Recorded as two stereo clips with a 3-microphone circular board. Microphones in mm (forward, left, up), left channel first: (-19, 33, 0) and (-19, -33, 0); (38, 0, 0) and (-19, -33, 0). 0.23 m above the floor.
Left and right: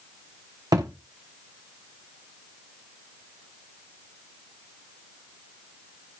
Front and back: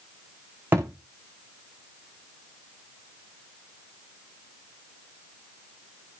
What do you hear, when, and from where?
0.7 s a thud: 90° right, 4.5 m